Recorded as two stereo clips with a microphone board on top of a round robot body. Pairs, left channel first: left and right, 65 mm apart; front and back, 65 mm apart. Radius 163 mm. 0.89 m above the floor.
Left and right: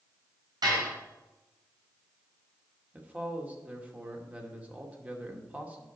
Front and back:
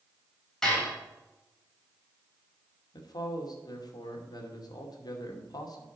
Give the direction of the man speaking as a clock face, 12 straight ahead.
1 o'clock.